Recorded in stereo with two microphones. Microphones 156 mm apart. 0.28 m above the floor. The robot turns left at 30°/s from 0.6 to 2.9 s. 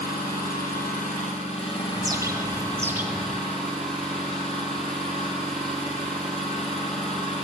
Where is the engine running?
70° left, 4 m; by 7.5 s 5° left, 4 m.